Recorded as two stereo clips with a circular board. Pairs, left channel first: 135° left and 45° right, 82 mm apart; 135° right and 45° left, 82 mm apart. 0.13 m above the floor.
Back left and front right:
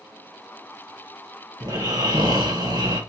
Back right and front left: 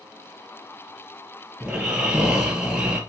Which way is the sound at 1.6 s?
30° right.